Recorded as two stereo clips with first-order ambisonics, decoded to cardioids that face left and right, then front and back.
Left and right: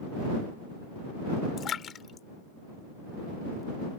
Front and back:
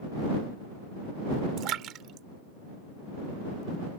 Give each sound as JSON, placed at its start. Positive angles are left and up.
{"t": 1.6, "sound": "a splash", "azimuth_deg": 145}